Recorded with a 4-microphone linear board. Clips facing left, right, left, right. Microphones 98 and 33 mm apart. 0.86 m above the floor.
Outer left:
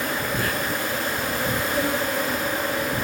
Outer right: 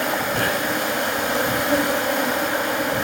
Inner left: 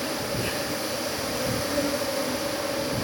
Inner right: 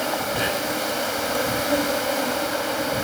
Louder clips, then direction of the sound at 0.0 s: Outer right 4 dB, inner right 5 dB; 75° right (ahead or behind).